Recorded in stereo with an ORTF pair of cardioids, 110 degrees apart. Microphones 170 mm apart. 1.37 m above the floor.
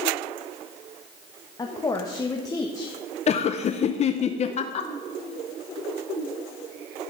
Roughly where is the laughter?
Ahead left.